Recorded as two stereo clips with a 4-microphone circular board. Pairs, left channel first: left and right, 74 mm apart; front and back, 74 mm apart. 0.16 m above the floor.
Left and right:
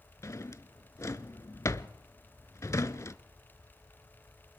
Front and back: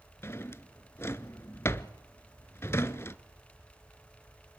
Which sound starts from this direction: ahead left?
A drawer, at 0.2 s.